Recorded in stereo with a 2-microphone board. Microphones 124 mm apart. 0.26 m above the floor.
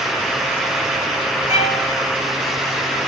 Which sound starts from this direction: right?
A violin, at 1.5 s.